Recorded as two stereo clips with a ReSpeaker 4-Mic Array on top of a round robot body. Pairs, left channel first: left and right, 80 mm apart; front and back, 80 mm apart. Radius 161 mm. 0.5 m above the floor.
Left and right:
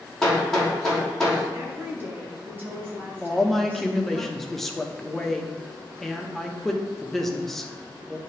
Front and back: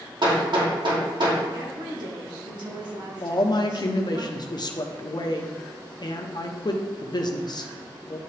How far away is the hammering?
About 2.5 m.